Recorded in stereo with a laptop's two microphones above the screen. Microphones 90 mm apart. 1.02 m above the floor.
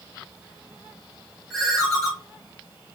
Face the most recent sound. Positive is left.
turn(degrees=5)  # may be behind; listen again after turning